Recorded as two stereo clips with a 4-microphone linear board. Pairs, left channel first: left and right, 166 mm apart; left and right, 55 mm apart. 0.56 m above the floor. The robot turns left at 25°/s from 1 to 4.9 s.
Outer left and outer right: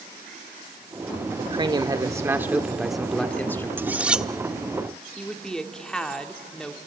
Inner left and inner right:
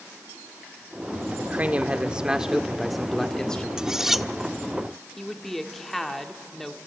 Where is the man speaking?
140° right, 1.2 m; by 3.7 s 165° left, 1.2 m.